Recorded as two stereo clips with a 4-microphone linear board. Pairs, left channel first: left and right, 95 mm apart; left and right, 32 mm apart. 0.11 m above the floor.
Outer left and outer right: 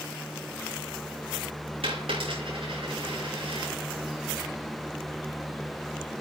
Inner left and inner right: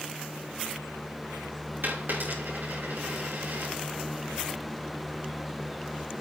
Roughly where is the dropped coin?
Right.